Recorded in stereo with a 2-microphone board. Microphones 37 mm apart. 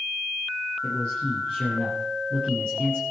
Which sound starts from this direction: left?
A man speaking, at 0.8 s.